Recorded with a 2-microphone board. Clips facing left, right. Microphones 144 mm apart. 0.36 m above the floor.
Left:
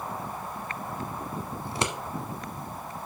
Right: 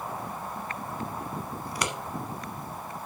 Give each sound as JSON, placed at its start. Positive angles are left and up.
{"t": 1.6, "sound": "scissors", "side_deg": 25, "distance_m": 1.2}